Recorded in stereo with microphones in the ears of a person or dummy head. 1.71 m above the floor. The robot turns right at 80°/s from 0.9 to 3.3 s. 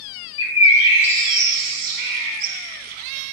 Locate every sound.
0.4 s a bird: 25° left (ahead or behind), 0.5 m; by 2.5 s 60° right (ahead or behind), 0.5 m